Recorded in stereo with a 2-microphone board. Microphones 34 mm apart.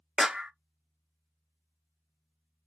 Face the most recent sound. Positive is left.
turn(degrees=-20)  # may be behind; listen again after turning